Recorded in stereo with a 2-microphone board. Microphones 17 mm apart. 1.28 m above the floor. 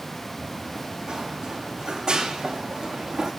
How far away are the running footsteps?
About 4 m.